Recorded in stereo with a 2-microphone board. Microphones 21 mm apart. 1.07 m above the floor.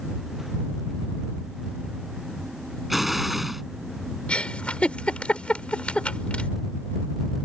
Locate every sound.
2.9 s an explosion: 10° right (ahead or behind)
4.3 s a giggle: 70° left (ahead or behind)